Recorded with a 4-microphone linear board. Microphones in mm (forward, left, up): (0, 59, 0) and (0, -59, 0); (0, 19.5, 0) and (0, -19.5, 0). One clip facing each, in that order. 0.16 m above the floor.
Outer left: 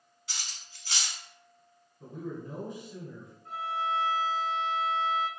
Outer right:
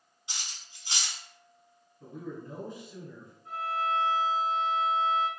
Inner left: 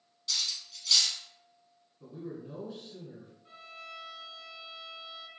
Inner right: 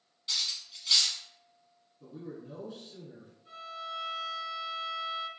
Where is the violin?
25° left (ahead or behind), 1.5 m.